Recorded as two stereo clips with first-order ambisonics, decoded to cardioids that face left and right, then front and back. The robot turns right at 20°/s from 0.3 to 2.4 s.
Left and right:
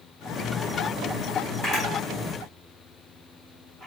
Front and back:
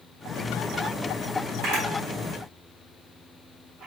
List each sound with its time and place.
1.6 s a camera shutter: 155° left, 2.5 m; by 3.9 s 170° left, 2.5 m